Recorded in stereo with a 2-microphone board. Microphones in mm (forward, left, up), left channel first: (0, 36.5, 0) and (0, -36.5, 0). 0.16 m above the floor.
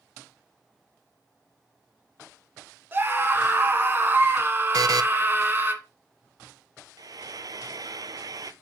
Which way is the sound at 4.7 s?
60° right (ahead or behind).